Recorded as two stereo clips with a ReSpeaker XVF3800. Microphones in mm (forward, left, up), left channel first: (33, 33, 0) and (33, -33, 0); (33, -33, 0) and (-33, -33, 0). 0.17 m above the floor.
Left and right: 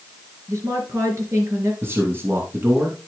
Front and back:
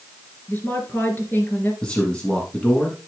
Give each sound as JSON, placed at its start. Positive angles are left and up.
{"t": 0.5, "sound": "a woman speaking", "azimuth_deg": -55, "distance_m": 2.5}
{"t": 1.8, "sound": "a man speaking", "azimuth_deg": -65, "distance_m": 1.6}